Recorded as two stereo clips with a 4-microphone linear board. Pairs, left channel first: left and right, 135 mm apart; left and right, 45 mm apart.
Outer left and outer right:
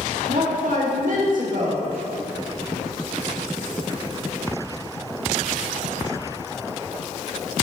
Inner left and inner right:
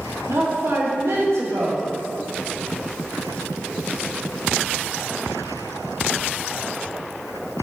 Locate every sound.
0.3 s a woman speaking: 75° right (ahead or behind), 2 m